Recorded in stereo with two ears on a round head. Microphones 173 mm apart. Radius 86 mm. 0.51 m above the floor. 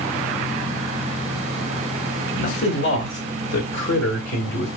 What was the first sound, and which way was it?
A man speaking, 50° left (ahead or behind).